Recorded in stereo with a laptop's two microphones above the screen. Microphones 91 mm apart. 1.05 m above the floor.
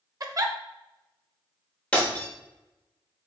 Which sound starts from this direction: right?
A giggle, at 0.2 s.